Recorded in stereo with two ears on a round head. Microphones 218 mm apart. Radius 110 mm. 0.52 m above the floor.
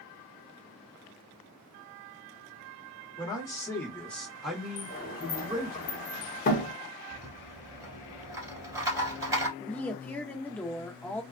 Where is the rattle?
15° right (ahead or behind), 1.3 m.